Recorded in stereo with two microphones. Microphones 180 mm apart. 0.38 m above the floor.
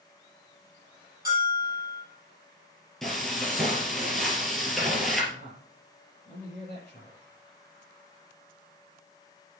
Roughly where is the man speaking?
Left.